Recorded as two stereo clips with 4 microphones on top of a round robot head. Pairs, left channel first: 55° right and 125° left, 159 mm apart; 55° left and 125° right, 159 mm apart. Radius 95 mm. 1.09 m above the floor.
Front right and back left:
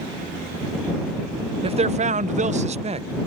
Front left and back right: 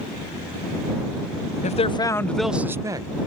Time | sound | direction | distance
1.6 | a man speaking | 80° left | ?